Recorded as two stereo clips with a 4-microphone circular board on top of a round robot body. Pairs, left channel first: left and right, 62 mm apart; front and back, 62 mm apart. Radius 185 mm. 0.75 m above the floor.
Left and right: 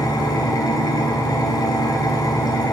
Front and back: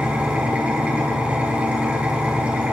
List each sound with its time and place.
0.0 s an engine running: 110° left, 1.2 m